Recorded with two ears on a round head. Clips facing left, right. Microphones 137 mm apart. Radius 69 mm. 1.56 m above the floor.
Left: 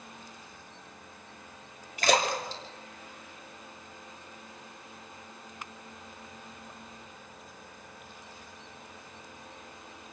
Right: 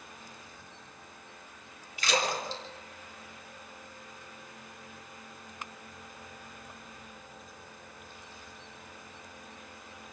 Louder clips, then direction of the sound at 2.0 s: Left 4 dB; 40° left (ahead or behind).